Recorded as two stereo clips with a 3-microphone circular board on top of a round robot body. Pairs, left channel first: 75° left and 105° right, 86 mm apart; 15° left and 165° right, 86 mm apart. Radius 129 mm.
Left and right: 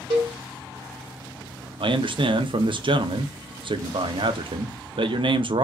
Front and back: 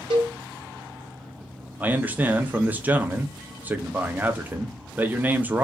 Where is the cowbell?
135° right, 0.8 m.